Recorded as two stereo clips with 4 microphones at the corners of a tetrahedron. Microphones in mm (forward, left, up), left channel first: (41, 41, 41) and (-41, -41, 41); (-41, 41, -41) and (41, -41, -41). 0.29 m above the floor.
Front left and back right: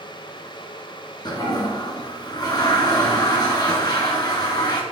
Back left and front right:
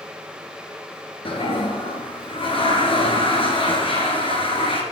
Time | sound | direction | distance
1.2 | a toilet flushing | 95° left | 2.5 m